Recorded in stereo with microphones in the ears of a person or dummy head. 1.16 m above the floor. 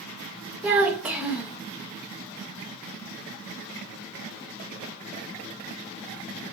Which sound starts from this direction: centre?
A child speaking, at 0.6 s.